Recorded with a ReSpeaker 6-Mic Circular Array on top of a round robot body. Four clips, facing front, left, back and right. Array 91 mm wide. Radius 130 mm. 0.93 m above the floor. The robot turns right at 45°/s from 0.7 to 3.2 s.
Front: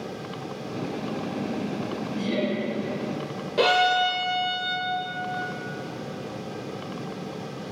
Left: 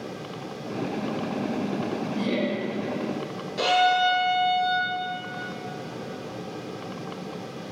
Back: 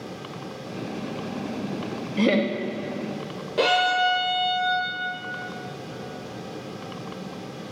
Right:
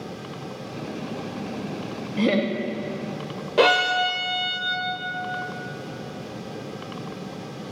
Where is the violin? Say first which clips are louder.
Right 1 dB, even; 85° right, 0.7 m.